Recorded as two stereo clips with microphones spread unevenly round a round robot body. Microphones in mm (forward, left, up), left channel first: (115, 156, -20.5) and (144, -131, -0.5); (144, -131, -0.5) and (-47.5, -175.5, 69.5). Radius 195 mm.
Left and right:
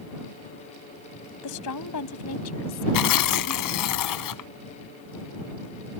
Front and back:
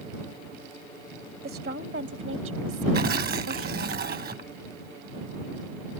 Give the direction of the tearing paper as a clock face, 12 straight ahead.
8 o'clock.